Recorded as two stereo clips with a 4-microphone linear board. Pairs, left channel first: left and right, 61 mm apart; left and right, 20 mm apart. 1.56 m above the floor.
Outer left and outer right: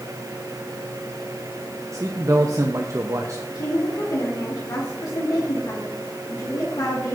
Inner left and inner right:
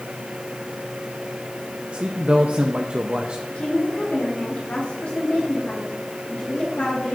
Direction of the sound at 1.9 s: 55° right (ahead or behind).